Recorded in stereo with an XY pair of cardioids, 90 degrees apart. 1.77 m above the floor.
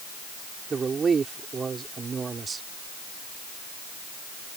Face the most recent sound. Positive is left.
turn(degrees=-45)